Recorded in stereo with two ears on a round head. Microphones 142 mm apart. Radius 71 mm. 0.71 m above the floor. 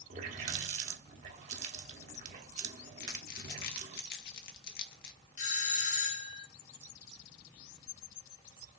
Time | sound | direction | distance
0.1 | a running tap | 45° right (ahead or behind) | 1.0 m
3.0 | crumpling | 65° left (ahead or behind) | 1.4 m
5.4 | a doorbell | 50° left (ahead or behind) | 1.6 m